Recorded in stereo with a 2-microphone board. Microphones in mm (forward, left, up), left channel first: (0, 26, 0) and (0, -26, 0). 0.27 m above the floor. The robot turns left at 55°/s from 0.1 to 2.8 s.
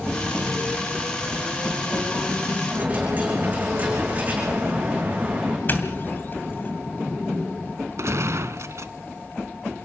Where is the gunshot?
65° right (ahead or behind), 0.9 m.